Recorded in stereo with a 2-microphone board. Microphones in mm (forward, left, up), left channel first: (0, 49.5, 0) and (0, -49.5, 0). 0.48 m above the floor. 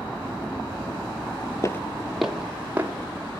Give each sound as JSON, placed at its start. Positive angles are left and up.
{"t": 1.6, "sound": "footsteps", "side_deg": 35, "distance_m": 0.7}